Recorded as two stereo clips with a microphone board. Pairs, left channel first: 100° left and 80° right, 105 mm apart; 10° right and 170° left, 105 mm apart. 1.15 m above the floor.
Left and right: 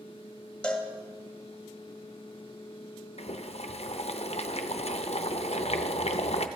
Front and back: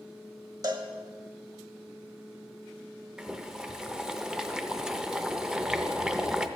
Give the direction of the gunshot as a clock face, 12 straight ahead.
No gunshot in this recording.